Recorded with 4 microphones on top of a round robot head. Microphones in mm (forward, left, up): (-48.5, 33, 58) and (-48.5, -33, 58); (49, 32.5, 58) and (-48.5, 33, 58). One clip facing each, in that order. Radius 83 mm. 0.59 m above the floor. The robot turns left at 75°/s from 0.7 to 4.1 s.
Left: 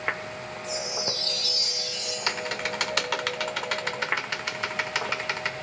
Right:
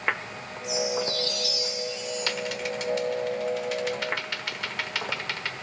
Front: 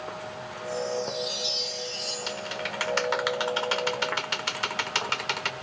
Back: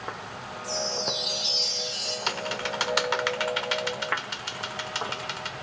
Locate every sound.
0.6 s a chime: 165° right, 4.5 m; by 2.2 s 85° left, 4.5 m
2.3 s typing on a keyboard: 155° left, 1.1 m; by 5.5 s 15° left, 1.1 m